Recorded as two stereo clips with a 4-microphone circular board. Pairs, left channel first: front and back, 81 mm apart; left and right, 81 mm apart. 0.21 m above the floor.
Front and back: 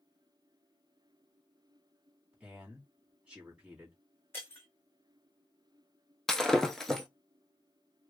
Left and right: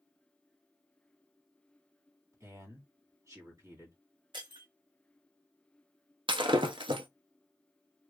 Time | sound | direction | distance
2.3 | a man speaking | 110° right | 1.7 m
4.3 | breaking glass | 65° right | 1.5 m
6.3 | breaking glass | 85° right | 0.7 m